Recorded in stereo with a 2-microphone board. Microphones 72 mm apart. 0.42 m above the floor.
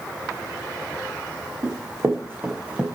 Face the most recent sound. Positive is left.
turn(degrees=-15)  # may be behind; listen again after turning